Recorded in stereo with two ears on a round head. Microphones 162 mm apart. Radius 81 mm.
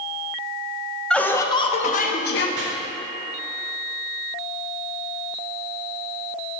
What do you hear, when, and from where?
1.1 s laughter: 5° left (ahead or behind), 1.0 m; by 2.5 s 65° left (ahead or behind), 1.0 m
2.6 s chopping: 70° right (ahead or behind), 2 m